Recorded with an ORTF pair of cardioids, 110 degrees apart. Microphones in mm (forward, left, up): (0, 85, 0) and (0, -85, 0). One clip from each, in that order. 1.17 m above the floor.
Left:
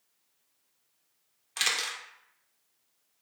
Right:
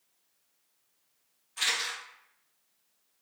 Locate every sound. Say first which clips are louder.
1.6 s a camera shutter: left 1 dB; 70° left, 0.8 m